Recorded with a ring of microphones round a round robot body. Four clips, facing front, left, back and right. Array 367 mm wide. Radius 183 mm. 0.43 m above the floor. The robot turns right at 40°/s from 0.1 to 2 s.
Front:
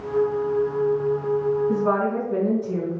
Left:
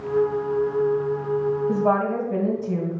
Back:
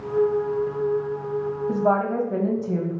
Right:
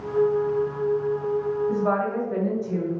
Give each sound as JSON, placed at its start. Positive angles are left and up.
{"t": 1.7, "sound": "a woman speaking", "azimuth_deg": 150, "distance_m": 2.0}